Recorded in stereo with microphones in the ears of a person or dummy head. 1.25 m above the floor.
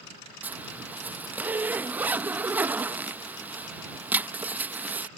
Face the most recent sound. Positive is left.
turn(degrees=-10)  # may be behind; listen again after turning